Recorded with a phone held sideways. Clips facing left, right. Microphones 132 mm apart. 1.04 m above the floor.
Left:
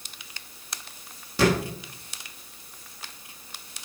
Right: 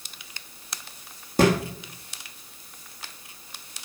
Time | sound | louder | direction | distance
1.4 | a thud | right 2 dB | 45° right (ahead or behind) | 5 m